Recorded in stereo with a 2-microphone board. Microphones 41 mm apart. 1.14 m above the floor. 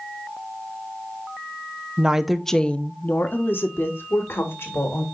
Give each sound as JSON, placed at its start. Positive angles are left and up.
{"t": 2.0, "sound": "a woman speaking", "side_deg": -25, "distance_m": 0.6}